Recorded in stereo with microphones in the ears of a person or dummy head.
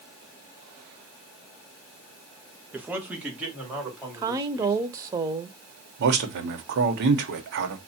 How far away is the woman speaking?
About 0.5 m.